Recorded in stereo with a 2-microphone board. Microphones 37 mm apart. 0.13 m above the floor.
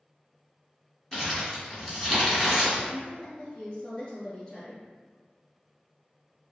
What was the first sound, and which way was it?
Crumpling, 15° left (ahead or behind).